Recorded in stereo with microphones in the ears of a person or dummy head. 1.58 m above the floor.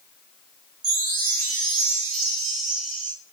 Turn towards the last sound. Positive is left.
turn(degrees=-70)  # may be behind; listen again after turning